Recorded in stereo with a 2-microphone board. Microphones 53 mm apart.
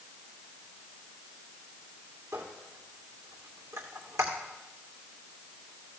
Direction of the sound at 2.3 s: 65° right (ahead or behind).